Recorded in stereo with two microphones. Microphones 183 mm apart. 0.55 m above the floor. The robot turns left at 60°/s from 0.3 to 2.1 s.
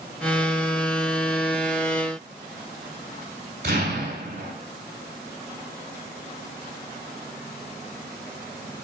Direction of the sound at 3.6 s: 70° right (ahead or behind).